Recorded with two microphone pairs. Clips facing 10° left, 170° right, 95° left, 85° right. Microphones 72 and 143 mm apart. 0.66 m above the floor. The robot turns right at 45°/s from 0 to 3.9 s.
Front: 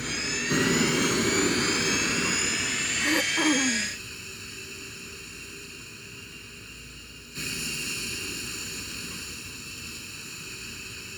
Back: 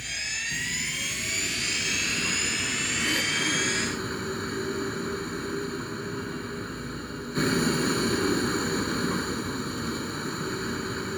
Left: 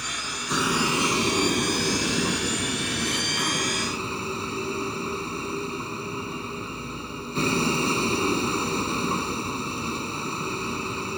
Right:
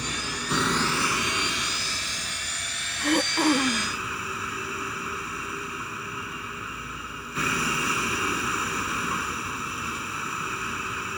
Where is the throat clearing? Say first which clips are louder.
Front 5 dB, right 6 dB; 60° right; by 4.0 s 15° right.